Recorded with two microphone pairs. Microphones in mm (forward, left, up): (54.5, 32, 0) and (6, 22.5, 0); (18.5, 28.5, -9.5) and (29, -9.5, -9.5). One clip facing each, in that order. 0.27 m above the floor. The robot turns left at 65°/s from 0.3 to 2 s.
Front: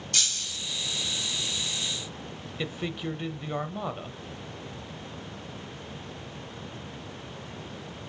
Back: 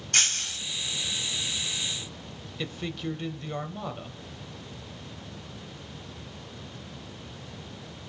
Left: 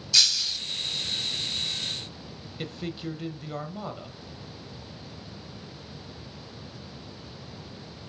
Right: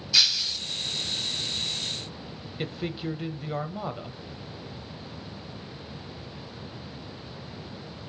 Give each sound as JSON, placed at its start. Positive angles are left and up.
{"t": 0.1, "sound": "breaking glass", "azimuth_deg": -145, "distance_m": 0.5}
{"t": 2.6, "sound": "a man speaking", "azimuth_deg": -15, "distance_m": 0.9}